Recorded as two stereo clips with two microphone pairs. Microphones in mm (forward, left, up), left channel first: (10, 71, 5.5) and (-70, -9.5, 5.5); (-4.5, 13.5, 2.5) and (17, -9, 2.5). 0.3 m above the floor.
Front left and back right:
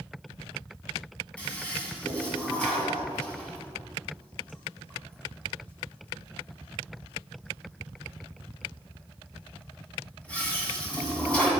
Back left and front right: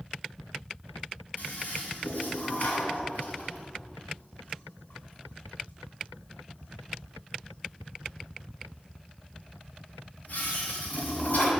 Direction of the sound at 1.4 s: 125° left.